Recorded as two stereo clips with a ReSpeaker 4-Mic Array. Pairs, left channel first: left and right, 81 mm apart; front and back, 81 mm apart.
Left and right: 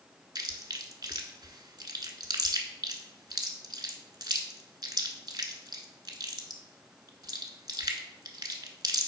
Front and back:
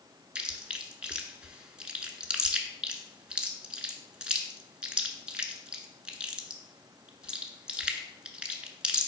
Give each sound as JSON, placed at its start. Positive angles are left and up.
{"t": 0.3, "sound": "chewing", "azimuth_deg": -105, "distance_m": 0.6}